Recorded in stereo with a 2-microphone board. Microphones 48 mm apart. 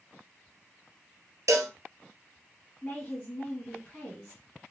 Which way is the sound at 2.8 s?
25° left (ahead or behind).